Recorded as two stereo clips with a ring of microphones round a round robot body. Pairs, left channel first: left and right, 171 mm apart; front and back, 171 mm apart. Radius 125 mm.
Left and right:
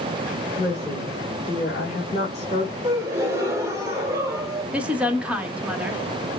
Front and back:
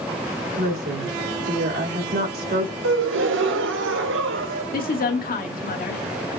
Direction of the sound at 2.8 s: 170° right.